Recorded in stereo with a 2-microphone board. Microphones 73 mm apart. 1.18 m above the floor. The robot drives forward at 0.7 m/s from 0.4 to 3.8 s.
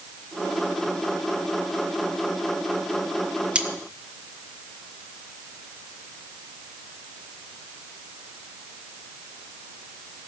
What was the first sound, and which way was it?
Cutlery clinking, 15° right (ahead or behind).